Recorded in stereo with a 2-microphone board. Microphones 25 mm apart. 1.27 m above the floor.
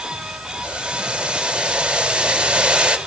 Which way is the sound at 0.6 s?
45° right (ahead or behind).